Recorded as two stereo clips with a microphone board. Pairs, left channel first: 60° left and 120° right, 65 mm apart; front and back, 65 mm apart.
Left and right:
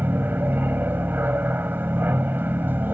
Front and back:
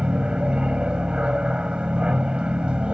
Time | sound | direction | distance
0.0 | an aircraft | 120° right | ?